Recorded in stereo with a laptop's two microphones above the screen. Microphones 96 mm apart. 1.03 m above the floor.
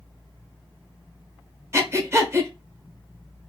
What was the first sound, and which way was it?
Breathing, 30° right (ahead or behind).